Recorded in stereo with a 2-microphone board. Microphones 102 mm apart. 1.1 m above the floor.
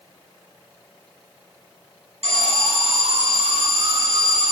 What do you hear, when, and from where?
2.2 s an alarm: 85° right, 5.5 m